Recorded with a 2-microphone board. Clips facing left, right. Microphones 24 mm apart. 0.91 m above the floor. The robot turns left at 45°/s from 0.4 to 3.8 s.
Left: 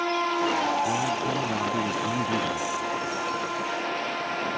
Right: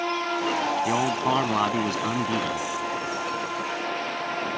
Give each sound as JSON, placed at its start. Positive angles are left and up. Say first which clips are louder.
{"t": 0.8, "sound": "a man speaking", "louder": "right 3 dB", "azimuth_deg": -90}